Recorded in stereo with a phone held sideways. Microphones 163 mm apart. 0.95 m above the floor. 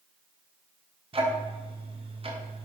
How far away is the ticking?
About 0.5 m.